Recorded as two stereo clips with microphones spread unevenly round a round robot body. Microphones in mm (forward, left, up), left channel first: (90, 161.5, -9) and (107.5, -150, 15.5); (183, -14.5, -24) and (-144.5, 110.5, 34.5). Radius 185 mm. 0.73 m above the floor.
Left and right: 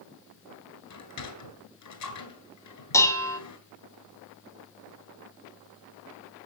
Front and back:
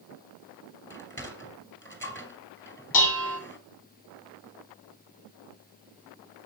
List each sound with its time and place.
0.9 s a sliding door: 60° left, 4 m
2.9 s dishes clattering: 10° left, 3.5 m